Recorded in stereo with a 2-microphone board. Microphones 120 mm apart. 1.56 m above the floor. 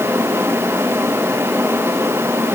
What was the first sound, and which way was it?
Only background noise.